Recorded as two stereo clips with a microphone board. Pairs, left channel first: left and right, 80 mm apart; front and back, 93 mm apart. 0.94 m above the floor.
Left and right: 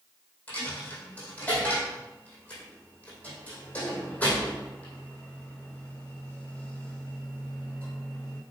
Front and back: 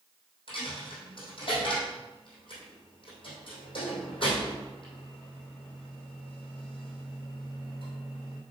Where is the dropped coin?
20° left, 3.5 m.